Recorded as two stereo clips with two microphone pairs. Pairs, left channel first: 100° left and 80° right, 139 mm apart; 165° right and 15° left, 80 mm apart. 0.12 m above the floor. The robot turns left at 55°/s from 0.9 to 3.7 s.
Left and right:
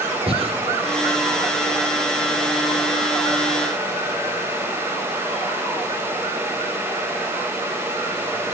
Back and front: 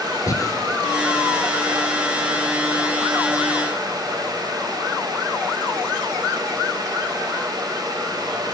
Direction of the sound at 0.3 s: 125° right.